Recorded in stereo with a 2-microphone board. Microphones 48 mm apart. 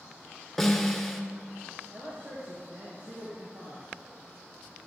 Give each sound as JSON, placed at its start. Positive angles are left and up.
{"t": 0.6, "sound": "a snare drum", "side_deg": 5, "distance_m": 1.8}
{"t": 1.9, "sound": "a man speaking", "side_deg": -50, "distance_m": 3.0}